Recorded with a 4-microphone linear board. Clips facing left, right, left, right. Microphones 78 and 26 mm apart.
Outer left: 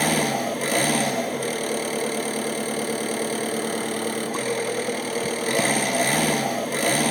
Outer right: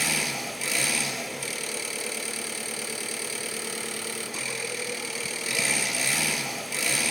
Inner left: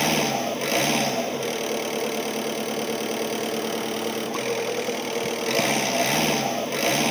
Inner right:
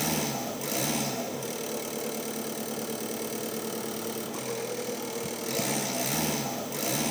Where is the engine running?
50° left (ahead or behind), 1.4 m.